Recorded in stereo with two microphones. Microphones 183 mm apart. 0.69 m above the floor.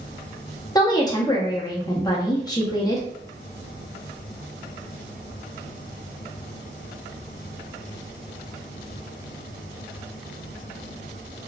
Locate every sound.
0.8 s a woman speaking: 20° left (ahead or behind), 0.8 m